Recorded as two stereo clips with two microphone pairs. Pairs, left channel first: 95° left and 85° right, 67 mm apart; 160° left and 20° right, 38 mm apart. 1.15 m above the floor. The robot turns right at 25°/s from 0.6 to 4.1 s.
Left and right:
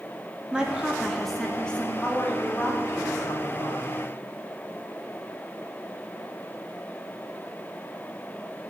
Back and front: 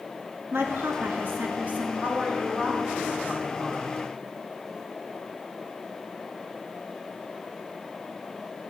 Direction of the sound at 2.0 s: 20° left.